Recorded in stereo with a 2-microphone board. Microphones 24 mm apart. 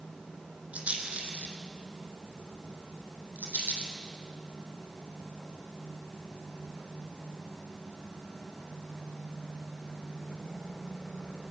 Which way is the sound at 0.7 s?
60° right (ahead or behind).